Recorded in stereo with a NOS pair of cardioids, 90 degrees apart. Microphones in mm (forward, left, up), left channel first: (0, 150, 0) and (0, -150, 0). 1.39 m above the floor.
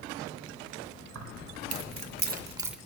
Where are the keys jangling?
65° right, 1.7 m; by 2.8 s straight ahead, 0.8 m.